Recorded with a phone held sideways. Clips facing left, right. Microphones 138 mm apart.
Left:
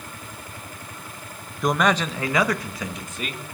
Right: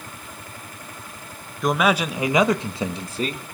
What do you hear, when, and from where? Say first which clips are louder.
1.6 s a man speaking: right 1 dB; centre (ahead or behind), 1.0 m; by 3.4 s 35° right (ahead or behind), 1.7 m